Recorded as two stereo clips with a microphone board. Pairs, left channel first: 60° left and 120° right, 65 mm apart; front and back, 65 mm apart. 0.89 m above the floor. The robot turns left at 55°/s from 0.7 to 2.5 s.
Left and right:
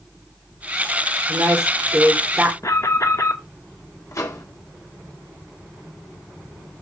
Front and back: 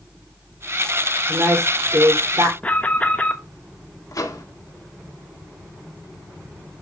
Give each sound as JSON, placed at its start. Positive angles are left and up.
{"t": 1.3, "sound": "a woman speaking", "azimuth_deg": -130, "distance_m": 2.5}
{"t": 2.6, "sound": "an alarm", "azimuth_deg": 60, "distance_m": 1.2}
{"t": 4.1, "sound": "a microwave", "azimuth_deg": 25, "distance_m": 1.7}